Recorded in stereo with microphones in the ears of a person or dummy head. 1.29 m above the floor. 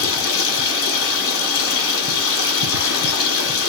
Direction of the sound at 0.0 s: 75° left (ahead or behind).